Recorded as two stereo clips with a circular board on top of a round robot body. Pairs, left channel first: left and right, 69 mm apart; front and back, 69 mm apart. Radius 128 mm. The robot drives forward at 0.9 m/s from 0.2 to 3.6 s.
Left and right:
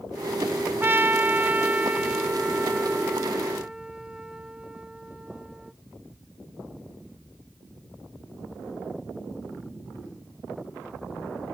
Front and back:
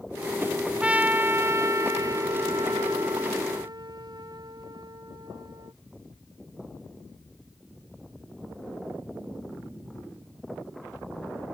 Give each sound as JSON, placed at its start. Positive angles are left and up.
{"t": 0.8, "sound": "a trumpet", "azimuth_deg": -115}